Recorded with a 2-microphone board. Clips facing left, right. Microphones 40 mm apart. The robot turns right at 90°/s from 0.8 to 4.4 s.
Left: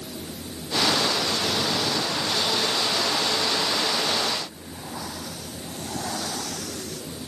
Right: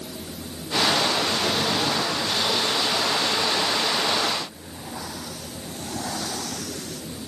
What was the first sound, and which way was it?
Only background noise.